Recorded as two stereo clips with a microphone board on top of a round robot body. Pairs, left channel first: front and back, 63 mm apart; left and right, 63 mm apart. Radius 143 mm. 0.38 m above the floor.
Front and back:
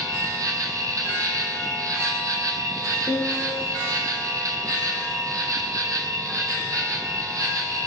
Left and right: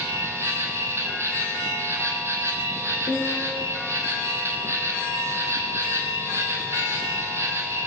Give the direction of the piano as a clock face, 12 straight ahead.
9 o'clock.